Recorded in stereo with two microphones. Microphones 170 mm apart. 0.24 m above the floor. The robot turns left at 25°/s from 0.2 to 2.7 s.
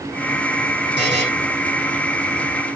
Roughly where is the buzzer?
Right.